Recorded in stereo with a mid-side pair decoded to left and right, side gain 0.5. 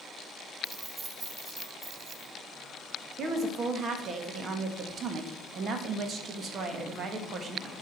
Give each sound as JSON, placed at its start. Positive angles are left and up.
{"t": 0.6, "sound": "keys jangling", "azimuth_deg": -25, "distance_m": 2.5}
{"t": 3.2, "sound": "a woman speaking", "azimuth_deg": -50, "distance_m": 1.8}